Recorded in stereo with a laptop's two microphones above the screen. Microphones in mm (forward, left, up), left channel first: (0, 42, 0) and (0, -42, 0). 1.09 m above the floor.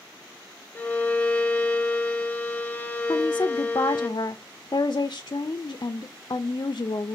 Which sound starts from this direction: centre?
A violin, at 0.8 s.